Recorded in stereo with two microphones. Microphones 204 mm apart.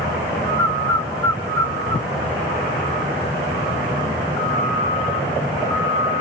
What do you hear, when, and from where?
0.6 s a bird: 15° left (ahead or behind), 0.8 m